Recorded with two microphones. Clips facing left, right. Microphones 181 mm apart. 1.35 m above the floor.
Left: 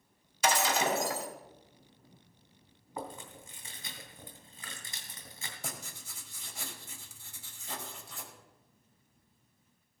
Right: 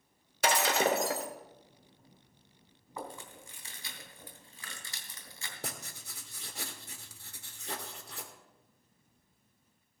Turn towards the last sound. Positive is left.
turn(degrees=-60)  # may be behind; listen again after turning